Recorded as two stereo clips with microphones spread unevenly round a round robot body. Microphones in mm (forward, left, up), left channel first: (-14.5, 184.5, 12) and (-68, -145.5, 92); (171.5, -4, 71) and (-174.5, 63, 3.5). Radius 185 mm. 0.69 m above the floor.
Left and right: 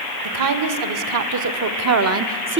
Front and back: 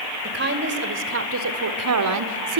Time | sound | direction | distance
0.2 | a woman speaking | 130° right | 2.5 m